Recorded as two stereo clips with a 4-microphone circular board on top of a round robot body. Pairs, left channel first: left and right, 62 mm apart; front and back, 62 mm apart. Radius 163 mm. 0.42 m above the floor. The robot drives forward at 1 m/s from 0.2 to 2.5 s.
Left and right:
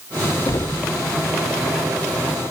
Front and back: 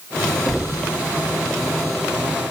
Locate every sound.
0.5 s knocking: 90° left, 0.8 m; by 0.9 s 130° left, 0.9 m